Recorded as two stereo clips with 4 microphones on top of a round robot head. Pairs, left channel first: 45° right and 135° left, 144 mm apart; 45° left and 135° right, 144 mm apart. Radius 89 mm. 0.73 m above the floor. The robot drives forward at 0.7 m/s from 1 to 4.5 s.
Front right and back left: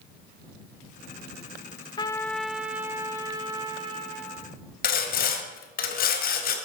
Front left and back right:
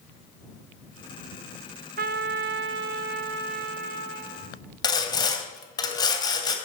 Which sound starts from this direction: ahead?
Sawing, at 4.8 s.